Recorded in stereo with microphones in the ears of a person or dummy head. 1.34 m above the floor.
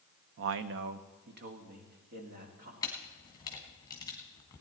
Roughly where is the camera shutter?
Left.